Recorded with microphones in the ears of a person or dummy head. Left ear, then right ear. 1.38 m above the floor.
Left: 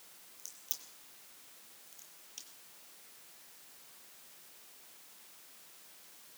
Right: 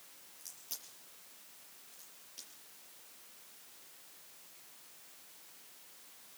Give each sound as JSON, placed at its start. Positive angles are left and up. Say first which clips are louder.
{"t": 0.4, "sound": "a crack", "louder": "left 2 dB", "side_deg": 10, "distance_m": 7.5}